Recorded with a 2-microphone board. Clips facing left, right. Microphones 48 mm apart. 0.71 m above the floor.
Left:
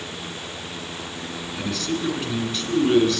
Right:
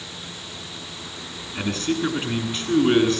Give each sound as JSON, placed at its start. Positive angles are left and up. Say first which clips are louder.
{"t": 1.6, "sound": "a man speaking", "louder": "right 3 dB", "side_deg": -35, "distance_m": 8.0}